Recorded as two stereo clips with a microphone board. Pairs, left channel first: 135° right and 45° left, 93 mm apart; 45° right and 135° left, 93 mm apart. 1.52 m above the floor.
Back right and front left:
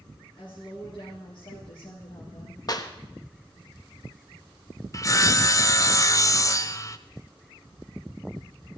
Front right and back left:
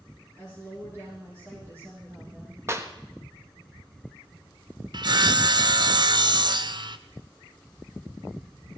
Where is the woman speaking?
170° right, 4 m; by 2.6 s 155° right, 2.5 m.